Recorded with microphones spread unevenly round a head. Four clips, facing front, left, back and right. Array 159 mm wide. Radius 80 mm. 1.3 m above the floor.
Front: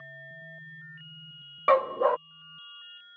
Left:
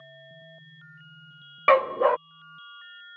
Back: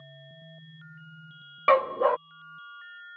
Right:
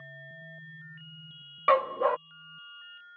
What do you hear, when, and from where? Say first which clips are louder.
1.7 s a dog barking: left 4 dB, back 1 dB; 80° left